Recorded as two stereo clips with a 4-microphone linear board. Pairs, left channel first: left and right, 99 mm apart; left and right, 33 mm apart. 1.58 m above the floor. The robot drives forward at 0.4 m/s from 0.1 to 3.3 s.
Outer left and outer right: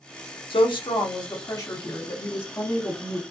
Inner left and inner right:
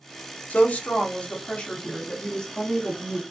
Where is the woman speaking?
65° left (ahead or behind), 0.6 m; by 3.2 s 20° left (ahead or behind), 1.5 m.